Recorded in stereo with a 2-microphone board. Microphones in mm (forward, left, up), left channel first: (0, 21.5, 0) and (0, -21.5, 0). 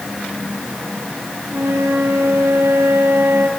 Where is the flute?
75° right (ahead or behind), 3 m.